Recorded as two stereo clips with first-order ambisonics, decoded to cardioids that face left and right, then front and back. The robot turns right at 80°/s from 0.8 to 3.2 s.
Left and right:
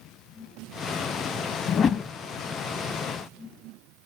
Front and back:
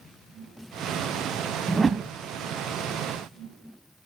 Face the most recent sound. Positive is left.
turn(degrees=-130)